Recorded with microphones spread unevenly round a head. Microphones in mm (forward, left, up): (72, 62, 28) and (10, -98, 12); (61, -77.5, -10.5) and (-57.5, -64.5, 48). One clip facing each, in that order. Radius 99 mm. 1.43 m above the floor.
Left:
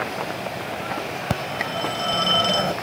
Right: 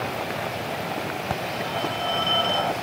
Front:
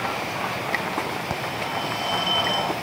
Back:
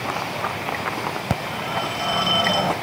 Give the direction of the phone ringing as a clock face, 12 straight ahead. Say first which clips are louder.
Left 3 dB, back 2 dB; 8 o'clock.